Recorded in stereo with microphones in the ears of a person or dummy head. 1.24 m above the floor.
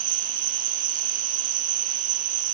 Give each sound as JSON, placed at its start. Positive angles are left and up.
{"t": 0.0, "sound": "an insect", "side_deg": -45}